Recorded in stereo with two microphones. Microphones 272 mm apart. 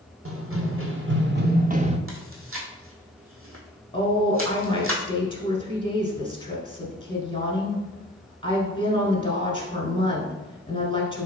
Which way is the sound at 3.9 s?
20° left (ahead or behind).